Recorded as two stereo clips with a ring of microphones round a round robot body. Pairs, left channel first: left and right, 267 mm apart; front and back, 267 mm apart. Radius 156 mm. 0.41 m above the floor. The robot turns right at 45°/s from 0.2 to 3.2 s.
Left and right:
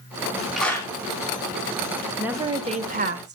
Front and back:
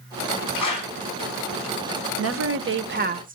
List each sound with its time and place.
0.6 s a clap: straight ahead, 4 m; by 0.9 s 15° left, 4 m
2.2 s a woman speaking: 175° right, 1.1 m; by 3.4 s 130° right, 1.1 m